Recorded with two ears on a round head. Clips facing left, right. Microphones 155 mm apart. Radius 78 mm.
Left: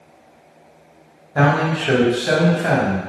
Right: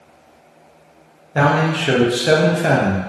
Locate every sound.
1.4 s a man speaking: 30° right (ahead or behind), 0.8 m; by 3.0 s 35° right (ahead or behind), 0.5 m